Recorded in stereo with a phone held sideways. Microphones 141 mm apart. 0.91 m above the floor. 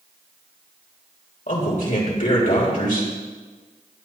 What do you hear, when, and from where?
1.5 s a man speaking: 75° left (ahead or behind), 4 m